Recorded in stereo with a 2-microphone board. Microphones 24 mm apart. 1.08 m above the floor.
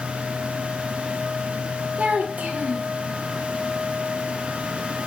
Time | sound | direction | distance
2.0 | a child speaking | 70° right (ahead or behind) | 0.7 m